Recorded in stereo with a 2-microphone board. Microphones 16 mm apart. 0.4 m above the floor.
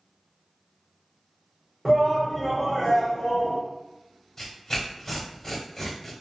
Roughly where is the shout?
Right.